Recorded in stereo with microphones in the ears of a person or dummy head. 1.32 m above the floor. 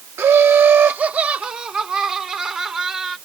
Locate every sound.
0.2 s laughter: 15° right (ahead or behind); by 3.2 s 5° right (ahead or behind)